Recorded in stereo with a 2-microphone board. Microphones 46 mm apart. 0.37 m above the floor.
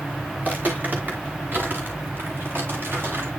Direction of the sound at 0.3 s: 40° right (ahead or behind).